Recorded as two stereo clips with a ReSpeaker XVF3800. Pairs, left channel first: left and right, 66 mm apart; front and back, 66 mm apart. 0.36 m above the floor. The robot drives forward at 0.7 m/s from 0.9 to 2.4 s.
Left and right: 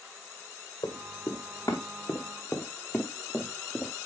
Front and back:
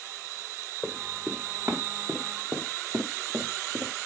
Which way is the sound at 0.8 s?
95° left.